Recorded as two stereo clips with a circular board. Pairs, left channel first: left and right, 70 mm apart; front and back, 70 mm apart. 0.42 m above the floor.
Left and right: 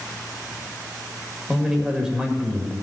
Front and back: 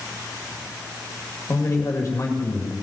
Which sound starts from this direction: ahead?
A man speaking, at 1.5 s.